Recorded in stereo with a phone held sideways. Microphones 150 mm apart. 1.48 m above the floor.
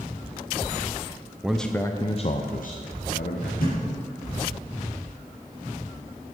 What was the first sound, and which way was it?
A man speaking, 5° right (ahead or behind).